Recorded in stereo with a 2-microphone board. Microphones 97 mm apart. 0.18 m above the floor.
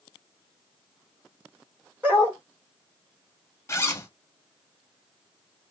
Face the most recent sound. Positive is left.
turn(degrees=25)  # may be behind; listen again after turning